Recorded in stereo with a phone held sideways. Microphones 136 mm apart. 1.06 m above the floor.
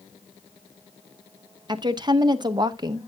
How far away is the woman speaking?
About 0.9 m.